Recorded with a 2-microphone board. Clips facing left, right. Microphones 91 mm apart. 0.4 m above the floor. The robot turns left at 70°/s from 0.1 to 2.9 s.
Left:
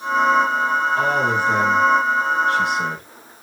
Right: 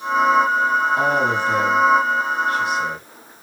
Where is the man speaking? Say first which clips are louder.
Even; 165° right, 5.5 m; by 3.0 s 60° left, 5.5 m.